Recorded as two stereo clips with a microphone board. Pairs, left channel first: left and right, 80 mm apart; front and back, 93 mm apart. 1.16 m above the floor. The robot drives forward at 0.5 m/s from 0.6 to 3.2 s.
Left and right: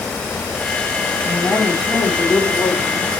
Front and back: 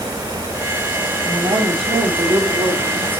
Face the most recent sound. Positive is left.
turn(degrees=175)